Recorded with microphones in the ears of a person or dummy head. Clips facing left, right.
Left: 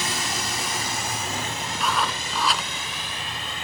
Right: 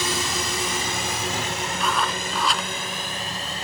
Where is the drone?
80° right; by 3.6 s 35° right (ahead or behind).